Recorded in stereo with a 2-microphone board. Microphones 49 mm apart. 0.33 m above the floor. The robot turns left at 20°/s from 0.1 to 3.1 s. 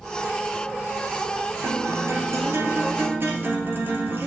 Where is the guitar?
75° right (ahead or behind), 1.6 m; by 4.3 s 45° right (ahead or behind), 1.6 m.